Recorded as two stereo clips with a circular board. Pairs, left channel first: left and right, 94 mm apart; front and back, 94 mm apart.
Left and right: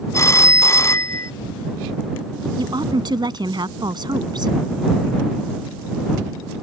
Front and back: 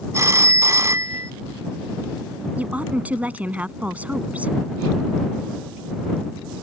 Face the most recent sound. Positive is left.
turn(degrees=-110)